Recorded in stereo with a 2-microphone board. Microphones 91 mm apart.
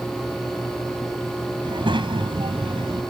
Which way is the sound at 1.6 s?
65° right (ahead or behind).